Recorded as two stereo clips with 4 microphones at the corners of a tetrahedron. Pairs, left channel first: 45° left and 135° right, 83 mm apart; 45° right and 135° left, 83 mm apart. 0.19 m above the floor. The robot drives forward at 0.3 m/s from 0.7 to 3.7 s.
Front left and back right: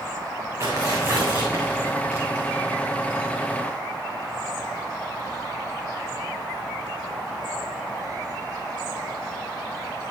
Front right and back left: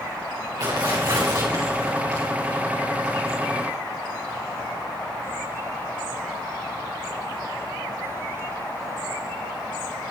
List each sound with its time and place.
0.6 s tearing paper: 170° left, 3 m; by 2.2 s 175° left, 3.5 m